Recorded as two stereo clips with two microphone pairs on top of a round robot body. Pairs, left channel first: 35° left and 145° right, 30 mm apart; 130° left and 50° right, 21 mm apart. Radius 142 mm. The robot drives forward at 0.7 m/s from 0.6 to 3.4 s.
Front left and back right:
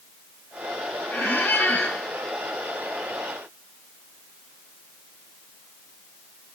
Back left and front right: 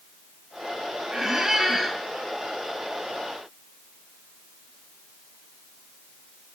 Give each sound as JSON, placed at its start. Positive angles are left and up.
{"t": 1.1, "sound": "a squeak", "azimuth_deg": 15, "distance_m": 2.0}